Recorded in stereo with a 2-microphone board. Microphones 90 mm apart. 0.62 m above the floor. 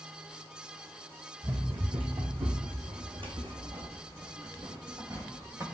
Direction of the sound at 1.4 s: 55° right (ahead or behind).